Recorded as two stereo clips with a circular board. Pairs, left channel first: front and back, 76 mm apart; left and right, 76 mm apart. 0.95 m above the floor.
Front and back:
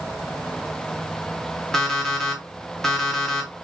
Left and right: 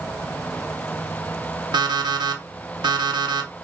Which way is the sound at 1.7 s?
85° right.